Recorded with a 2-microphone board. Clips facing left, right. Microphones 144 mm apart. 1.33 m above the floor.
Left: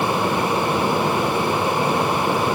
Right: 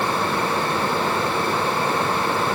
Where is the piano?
No piano in this recording.